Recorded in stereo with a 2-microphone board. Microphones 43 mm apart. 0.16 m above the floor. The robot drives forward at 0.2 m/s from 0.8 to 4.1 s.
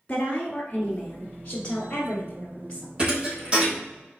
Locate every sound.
0.1 s a woman speaking: 25° left (ahead or behind), 1.3 m; by 2.9 s 20° left (ahead or behind), 1.6 m
3.0 s a thud: 25° right (ahead or behind), 2 m